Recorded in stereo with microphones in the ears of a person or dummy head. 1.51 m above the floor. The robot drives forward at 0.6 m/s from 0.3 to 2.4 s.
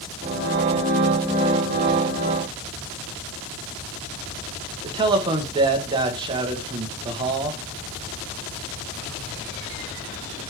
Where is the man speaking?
25° right (ahead or behind), 1.4 m.